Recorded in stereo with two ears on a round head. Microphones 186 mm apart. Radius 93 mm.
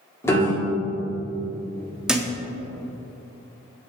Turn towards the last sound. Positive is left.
turn(degrees=-5)  # may be behind; listen again after turning